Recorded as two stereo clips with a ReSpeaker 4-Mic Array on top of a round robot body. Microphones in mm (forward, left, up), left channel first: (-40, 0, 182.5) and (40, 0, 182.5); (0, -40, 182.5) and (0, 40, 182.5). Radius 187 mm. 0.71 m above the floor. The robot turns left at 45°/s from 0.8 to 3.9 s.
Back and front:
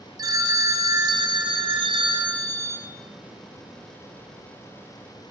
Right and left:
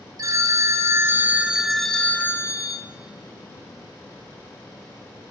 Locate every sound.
0.2 s a phone ringing: 40° left, 0.9 m; by 2.8 s 50° right, 0.9 m